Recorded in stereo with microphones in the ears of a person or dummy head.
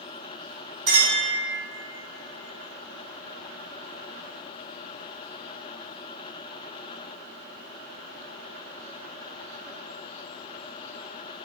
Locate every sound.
0.9 s a clink: 25° right (ahead or behind), 2.0 m